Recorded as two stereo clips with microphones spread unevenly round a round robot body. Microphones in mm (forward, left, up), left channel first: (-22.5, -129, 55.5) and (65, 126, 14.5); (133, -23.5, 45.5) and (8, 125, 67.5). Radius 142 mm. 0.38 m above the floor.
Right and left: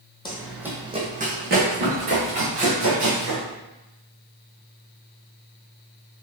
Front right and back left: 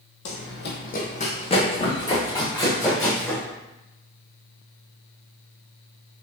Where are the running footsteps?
40° right, 0.9 m; by 3.4 s 30° left, 3.5 m.